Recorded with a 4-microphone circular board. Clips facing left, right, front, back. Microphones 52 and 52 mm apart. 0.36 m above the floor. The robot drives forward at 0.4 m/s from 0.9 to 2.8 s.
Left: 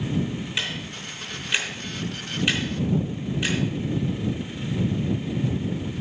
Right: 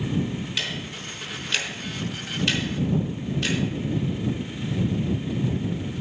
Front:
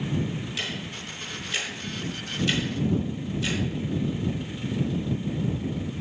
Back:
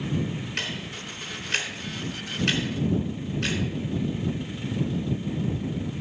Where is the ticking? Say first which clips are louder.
Left 1 dB, back 1 dB; 160° left, 3.5 m; by 3.6 s 165° left, 4 m.